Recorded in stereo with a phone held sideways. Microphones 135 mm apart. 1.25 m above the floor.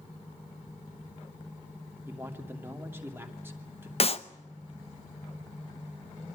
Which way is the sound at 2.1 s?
15° right (ahead or behind).